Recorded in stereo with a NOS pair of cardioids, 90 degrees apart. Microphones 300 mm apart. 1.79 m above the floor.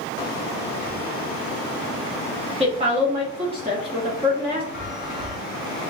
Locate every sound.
2.6 s a woman speaking: 20° right, 1.2 m
4.7 s a chime: straight ahead, 1.4 m